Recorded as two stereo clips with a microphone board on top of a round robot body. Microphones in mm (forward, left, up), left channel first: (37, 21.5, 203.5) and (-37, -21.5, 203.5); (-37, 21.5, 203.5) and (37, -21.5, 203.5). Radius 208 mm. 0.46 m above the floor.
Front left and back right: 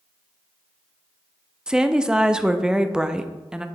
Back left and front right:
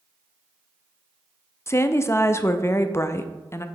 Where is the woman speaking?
135° left, 0.7 m.